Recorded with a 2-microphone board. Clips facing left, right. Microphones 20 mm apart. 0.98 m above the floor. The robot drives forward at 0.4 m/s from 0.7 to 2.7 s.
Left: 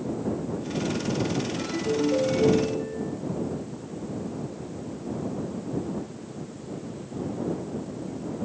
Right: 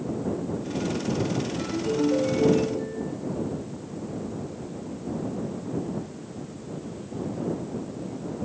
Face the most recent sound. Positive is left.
turn(degrees=-25)  # may be behind; listen again after turning